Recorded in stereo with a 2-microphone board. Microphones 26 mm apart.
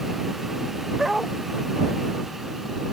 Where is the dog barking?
15° right (ahead or behind).